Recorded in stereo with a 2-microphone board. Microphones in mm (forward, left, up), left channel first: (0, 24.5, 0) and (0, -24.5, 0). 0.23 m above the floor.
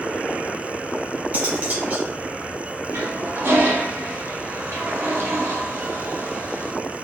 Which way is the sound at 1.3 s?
35° right (ahead or behind).